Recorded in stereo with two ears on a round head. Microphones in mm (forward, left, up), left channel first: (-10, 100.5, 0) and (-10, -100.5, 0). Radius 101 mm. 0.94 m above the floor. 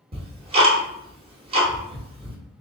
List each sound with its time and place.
0.1 s ticking: 25° right (ahead or behind), 1.0 m